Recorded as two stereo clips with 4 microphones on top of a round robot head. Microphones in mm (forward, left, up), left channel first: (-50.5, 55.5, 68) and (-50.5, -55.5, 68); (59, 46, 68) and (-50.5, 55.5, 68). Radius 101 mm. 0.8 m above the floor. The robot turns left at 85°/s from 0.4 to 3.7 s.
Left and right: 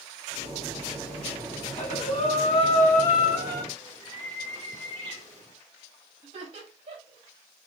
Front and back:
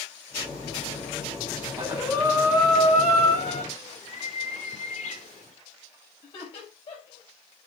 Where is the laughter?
50° right, 5.5 m.